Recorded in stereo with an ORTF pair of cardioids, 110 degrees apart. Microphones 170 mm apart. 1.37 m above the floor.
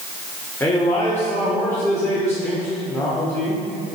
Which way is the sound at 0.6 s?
15° left.